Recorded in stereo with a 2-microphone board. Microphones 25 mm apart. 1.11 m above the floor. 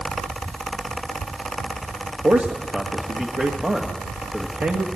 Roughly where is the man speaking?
Right.